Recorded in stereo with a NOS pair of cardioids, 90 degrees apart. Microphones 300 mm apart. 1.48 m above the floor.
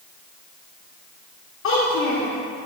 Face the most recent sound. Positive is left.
turn(degrees=65)